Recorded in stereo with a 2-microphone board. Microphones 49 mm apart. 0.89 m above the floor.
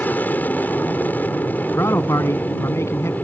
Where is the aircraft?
40° left (ahead or behind).